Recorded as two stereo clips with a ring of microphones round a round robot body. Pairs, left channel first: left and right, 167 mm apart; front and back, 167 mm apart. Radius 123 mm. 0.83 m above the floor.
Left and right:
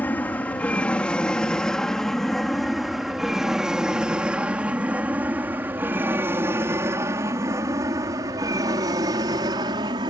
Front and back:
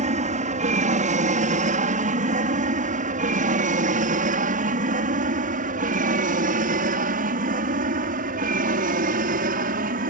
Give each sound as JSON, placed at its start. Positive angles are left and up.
{"t": 0.0, "sound": "an aircraft", "azimuth_deg": 170}